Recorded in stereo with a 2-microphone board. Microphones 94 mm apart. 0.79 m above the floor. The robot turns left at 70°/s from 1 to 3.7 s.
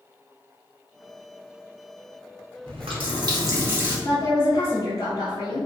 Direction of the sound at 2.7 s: 80° right.